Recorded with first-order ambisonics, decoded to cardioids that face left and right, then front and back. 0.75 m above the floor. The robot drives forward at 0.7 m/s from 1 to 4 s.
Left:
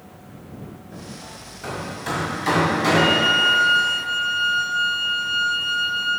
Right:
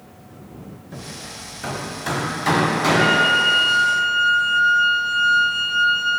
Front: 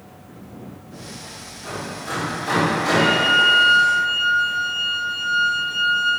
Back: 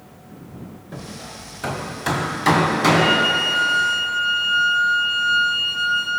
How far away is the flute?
About 1.5 m.